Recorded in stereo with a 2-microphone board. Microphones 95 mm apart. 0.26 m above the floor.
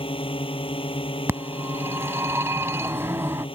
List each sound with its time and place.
0.0 s a drone: 70° left (ahead or behind)
1.3 s a phone ringing: 25° right (ahead or behind)